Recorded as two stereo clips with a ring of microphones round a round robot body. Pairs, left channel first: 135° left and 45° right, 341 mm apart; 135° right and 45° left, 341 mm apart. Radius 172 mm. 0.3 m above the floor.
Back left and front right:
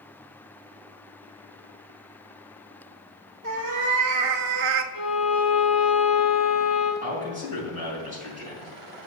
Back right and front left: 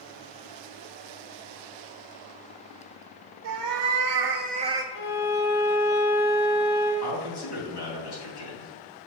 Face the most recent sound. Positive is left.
turn(degrees=-110)